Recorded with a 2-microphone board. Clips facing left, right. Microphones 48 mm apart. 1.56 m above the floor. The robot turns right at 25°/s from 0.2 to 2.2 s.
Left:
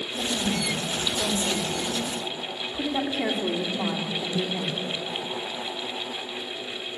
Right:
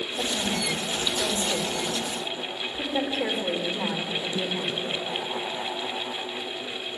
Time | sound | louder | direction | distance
0.2 | a woman speaking | left 1 dB | 5° right | 4 m